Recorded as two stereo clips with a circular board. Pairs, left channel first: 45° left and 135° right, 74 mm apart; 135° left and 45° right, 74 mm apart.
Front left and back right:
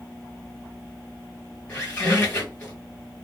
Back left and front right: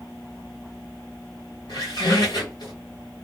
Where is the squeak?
115° left, 1.9 m.